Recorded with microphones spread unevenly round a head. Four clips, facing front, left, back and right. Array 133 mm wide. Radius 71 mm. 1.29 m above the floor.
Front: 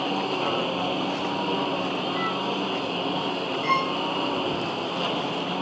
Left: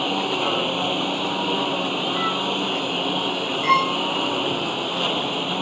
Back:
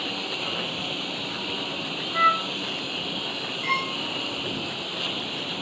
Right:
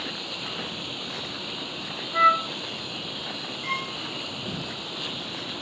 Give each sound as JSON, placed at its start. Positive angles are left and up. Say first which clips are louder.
{"t": 0.0, "sound": "a lawn mower", "louder": "left 14 dB, front 7 dB", "azimuth_deg": 65}
{"t": 2.1, "sound": "a flute", "louder": "right 3 dB, back 4 dB", "azimuth_deg": -115}
{"t": 3.6, "sound": "a violin", "louder": "left 15 dB, front 4 dB", "azimuth_deg": 85}